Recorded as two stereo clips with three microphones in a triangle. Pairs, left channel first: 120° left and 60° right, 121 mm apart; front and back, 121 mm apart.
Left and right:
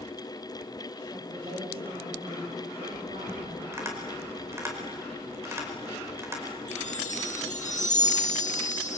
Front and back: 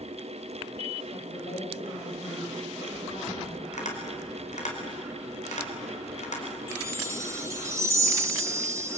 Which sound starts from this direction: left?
A chime, at 6.7 s.